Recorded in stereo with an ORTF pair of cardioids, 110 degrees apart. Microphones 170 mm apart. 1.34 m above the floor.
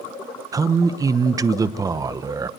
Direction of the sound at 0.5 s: 20° right.